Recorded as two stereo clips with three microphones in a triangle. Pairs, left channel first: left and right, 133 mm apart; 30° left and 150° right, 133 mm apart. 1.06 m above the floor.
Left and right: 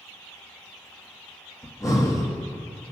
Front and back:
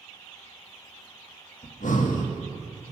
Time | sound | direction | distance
1.6 | breathing | 25° left | 1.2 m